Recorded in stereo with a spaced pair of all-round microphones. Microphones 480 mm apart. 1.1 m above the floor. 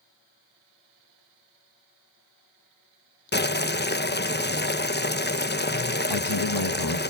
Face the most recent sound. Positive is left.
turn(degrees=55)  # may be behind; listen again after turning